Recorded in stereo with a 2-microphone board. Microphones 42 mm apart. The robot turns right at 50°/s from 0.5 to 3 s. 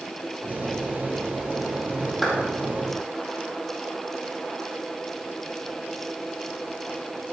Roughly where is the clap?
Centre.